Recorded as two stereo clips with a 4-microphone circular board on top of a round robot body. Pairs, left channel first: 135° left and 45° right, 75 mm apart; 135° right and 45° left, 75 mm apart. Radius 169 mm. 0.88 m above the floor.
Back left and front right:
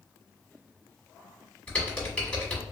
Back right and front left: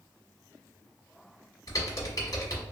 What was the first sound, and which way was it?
Typing on a keyboard, 155° right.